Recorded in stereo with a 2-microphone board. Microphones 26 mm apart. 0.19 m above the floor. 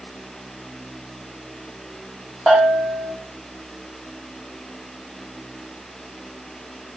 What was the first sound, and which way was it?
A bell, 25° right (ahead or behind).